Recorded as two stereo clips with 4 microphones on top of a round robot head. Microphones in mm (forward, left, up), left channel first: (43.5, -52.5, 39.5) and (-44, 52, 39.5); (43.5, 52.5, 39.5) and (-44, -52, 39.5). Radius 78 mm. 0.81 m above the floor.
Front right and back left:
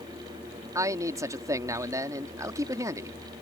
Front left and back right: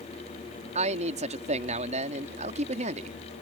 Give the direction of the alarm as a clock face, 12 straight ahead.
No alarm in this recording.